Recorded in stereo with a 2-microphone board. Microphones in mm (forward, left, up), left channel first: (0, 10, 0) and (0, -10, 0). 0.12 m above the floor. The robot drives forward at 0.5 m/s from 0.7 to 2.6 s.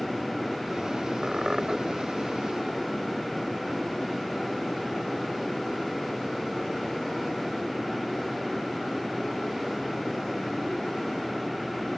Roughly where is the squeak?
Right.